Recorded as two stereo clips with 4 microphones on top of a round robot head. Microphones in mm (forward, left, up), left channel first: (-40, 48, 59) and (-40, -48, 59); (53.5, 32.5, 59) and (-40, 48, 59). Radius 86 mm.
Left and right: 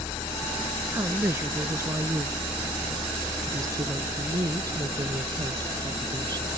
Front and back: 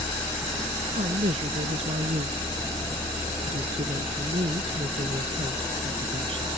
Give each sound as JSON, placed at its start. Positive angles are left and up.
{"t": 0.9, "sound": "a woman speaking", "azimuth_deg": -155}